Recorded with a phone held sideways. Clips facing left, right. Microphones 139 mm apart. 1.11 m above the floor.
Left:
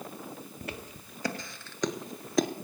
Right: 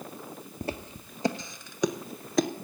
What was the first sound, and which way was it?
Footsteps, 30° right (ahead or behind).